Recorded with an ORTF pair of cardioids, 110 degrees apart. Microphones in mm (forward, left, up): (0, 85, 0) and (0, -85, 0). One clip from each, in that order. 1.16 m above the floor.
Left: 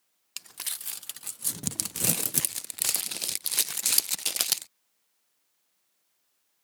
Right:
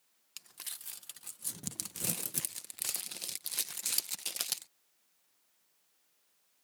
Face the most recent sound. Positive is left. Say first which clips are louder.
# left 9 dB
turn(degrees=45)